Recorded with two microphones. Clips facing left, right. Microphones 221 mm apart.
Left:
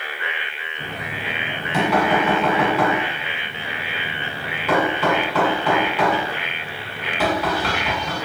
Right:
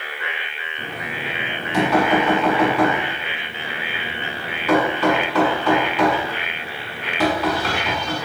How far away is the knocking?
About 1.7 m.